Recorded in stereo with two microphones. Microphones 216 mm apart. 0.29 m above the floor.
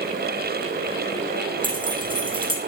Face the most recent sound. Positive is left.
turn(degrees=-25)  # may be behind; listen again after turning